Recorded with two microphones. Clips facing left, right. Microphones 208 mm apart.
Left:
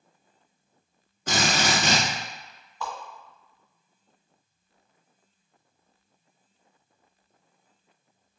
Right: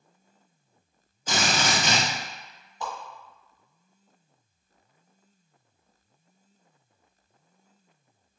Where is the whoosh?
20° right (ahead or behind), 1.4 m.